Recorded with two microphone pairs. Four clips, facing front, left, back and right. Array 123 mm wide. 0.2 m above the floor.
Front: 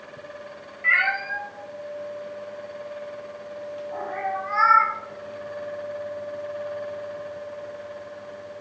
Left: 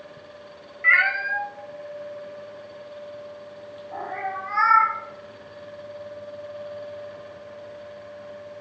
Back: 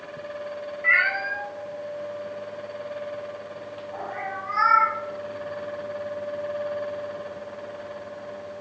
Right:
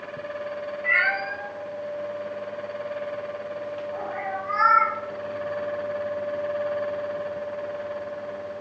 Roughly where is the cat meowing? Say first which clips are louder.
Left 4 dB, even; left.